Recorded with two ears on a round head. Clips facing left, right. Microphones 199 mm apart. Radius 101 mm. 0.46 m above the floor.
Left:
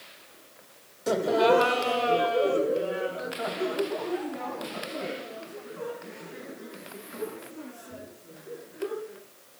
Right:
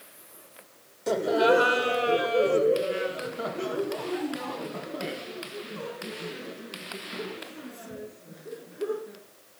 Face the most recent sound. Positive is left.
turn(degrees=-65)  # may be behind; listen again after turning